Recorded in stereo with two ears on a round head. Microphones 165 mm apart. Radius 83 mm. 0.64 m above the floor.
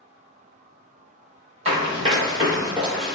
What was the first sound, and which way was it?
Running footsteps, 30° right (ahead or behind).